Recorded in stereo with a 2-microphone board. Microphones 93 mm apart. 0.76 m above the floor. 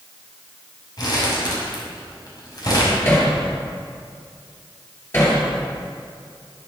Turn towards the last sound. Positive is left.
turn(degrees=25)  # may be behind; listen again after turning